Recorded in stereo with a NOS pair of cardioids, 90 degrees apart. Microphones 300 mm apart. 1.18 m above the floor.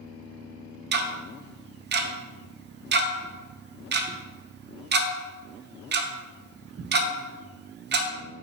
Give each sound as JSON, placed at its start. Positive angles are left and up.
{"t": 0.9, "sound": "ticking", "azimuth_deg": -35, "distance_m": 0.6}